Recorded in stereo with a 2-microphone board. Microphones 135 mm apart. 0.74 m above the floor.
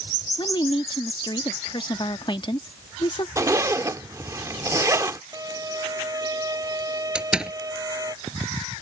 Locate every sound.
0.4 s a woman speaking: 35° left (ahead or behind)
3.4 s a zipper: 25° right (ahead or behind)
5.3 s a violin: 25° right (ahead or behind)
7.2 s a door slam: 5° right (ahead or behind)